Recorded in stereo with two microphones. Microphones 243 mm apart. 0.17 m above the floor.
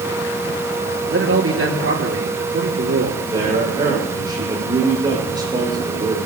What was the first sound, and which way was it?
A man speaking, 65° right (ahead or behind).